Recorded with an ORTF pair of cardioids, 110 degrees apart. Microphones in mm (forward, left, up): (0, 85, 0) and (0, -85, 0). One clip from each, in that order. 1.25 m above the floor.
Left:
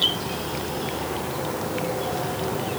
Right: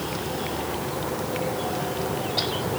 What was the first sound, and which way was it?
Only background noise.